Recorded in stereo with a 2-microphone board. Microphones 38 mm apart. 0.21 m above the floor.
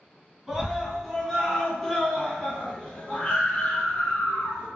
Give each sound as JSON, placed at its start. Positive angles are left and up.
{"t": 0.5, "sound": "a scream", "side_deg": -5, "distance_m": 2.0}